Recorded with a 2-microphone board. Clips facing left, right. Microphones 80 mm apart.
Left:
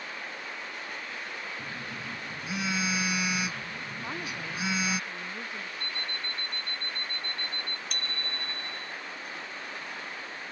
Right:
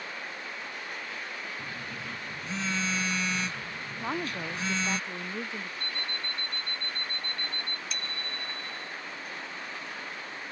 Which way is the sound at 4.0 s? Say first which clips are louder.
Right 6 dB; 25° right (ahead or behind).